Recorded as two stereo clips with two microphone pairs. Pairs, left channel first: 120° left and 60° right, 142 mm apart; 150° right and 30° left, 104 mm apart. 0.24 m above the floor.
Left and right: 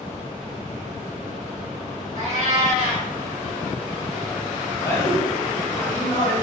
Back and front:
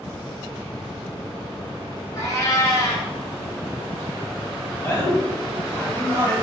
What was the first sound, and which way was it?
A cat meowing, 95° right.